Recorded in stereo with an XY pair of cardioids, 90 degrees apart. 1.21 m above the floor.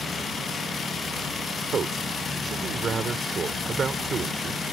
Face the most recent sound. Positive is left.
turn(degrees=-50)